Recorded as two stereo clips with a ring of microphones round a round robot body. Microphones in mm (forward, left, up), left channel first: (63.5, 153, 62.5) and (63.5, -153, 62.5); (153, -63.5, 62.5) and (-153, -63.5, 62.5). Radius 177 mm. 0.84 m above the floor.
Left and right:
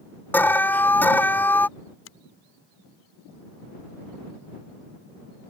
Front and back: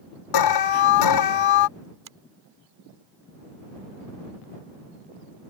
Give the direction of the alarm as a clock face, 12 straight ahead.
12 o'clock.